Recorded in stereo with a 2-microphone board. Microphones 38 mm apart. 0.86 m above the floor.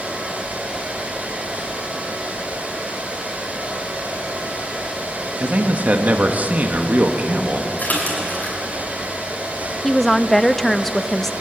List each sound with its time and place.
5.4 s a man speaking: 40° right (ahead or behind), 1.4 m
7.8 s a splash: 50° left (ahead or behind), 6 m
9.8 s a woman speaking: 5° left (ahead or behind), 0.7 m